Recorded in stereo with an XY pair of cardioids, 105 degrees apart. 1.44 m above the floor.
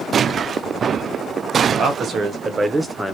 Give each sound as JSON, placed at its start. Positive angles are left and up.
{"t": 1.7, "sound": "a man speaking", "azimuth_deg": -60, "distance_m": 1.3}